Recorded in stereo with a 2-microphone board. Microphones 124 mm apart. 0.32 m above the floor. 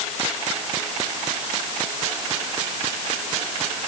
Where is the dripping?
I don't hear dripping.